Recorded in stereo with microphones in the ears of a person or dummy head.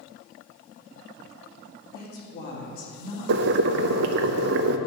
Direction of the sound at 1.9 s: 50° left (ahead or behind).